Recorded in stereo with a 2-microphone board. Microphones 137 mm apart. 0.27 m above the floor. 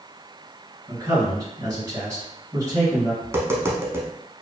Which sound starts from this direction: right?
A man speaking, at 0.9 s.